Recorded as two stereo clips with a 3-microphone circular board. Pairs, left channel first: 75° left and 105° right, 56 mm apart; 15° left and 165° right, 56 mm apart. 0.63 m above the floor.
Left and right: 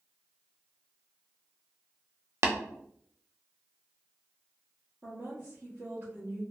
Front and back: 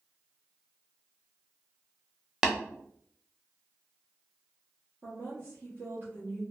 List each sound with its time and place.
2.4 s tapping: 85° right, 0.6 m
5.0 s a woman speaking: 135° right, 1.0 m